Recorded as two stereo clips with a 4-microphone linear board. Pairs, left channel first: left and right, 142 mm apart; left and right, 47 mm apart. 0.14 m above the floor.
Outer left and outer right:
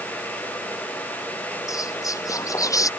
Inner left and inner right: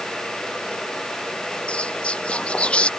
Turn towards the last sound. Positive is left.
turn(degrees=25)  # may be behind; listen again after turning